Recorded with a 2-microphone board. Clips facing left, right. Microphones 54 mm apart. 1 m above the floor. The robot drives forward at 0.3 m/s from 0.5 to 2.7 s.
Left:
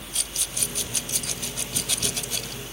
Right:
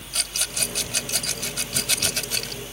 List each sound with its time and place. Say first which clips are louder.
0.1 s a rattle: right 6 dB; 85° right; by 2.6 s 65° right (ahead or behind)